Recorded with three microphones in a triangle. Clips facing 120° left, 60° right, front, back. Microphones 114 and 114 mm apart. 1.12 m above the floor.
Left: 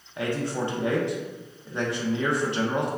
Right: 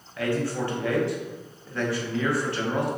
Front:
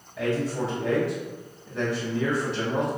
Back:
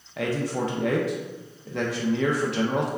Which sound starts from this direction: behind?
A man speaking, at 0.2 s.